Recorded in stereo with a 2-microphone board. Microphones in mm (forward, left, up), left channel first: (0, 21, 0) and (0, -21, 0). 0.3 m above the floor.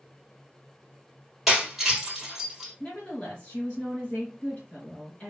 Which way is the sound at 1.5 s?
5° right (ahead or behind).